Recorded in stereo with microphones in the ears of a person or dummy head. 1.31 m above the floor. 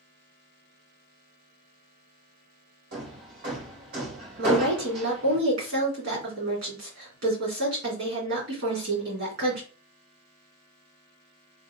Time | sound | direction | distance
2.9 | hammering | 65° right (ahead or behind) | 2.0 m
4.4 | a woman speaking | 65° right (ahead or behind) | 2.5 m